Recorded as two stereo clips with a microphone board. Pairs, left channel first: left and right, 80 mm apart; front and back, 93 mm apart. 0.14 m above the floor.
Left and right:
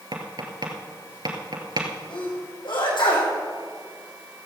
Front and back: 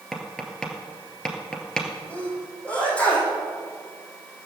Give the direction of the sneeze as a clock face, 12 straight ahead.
9 o'clock.